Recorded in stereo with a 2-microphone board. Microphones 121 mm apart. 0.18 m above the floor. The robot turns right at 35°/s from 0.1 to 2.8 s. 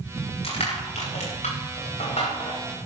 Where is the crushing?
55° left (ahead or behind), 9 m; by 2.6 s 50° left (ahead or behind), 9 m.